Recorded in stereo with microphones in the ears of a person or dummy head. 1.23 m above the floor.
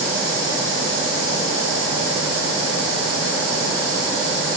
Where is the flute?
I don't hear a flute.